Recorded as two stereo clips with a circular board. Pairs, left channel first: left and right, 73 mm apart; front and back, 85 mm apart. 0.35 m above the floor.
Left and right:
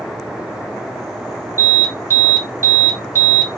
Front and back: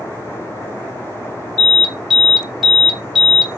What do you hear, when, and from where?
1.6 s an alarm: 95° right, 1.7 m